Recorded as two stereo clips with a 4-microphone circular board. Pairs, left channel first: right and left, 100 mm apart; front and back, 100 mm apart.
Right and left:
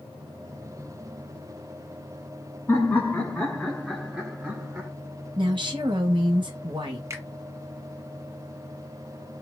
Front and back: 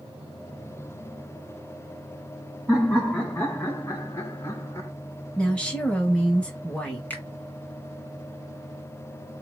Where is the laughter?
60° right, 1.5 m; by 4.9 s 35° left, 1.7 m.